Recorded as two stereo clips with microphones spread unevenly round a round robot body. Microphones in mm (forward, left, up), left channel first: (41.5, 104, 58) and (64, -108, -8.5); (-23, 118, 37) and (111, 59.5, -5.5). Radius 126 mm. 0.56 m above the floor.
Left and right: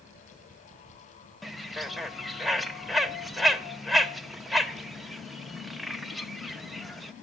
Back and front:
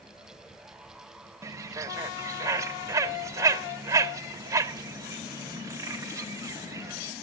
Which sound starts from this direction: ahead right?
A bird, at 1.4 s.